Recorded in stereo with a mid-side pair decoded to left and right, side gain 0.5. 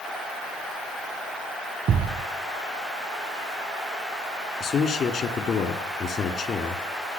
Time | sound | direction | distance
1.9 | a thud | 50° right | 1.5 m
4.6 | a man speaking | 50° left | 2.5 m